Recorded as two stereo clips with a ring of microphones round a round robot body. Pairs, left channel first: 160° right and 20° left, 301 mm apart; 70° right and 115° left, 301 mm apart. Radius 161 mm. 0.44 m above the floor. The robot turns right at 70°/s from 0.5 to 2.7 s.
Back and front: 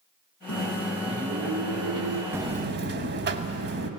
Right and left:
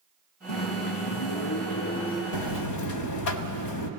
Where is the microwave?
105° right, 5 m; by 2.2 s 15° left, 5 m.